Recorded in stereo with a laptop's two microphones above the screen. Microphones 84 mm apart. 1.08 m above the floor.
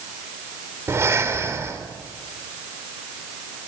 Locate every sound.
0.9 s breathing: 35° right (ahead or behind), 3.5 m